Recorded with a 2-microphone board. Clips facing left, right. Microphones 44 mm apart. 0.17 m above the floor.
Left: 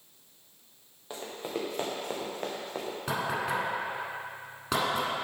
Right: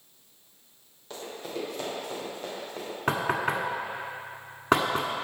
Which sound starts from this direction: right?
Knocking, at 3.1 s.